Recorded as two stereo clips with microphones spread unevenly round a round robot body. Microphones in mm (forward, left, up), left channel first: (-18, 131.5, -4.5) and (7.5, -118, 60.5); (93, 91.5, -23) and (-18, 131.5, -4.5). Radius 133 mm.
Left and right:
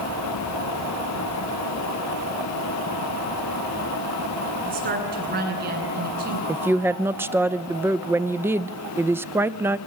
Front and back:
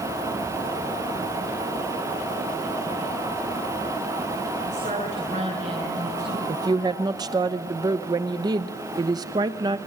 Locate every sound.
4.7 s a woman speaking: 140° right, 9.5 m
6.5 s a woman speaking: 170° left, 0.8 m